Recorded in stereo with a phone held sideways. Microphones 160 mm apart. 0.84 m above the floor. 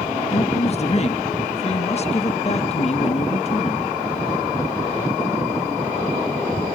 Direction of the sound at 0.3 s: 45° left (ahead or behind).